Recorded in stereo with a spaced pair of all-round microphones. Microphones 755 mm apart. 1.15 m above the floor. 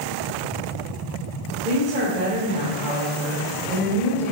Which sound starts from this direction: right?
A woman speaking, at 1.6 s.